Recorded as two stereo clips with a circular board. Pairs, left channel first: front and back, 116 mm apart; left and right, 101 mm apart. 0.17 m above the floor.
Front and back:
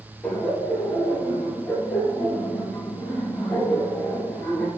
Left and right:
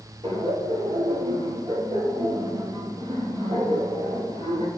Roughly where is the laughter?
Right.